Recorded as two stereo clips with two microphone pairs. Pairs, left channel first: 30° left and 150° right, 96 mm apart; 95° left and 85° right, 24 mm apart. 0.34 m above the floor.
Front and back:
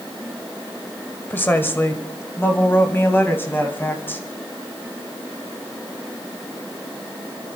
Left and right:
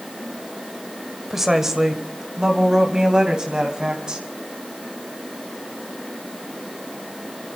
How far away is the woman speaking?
About 1.6 m.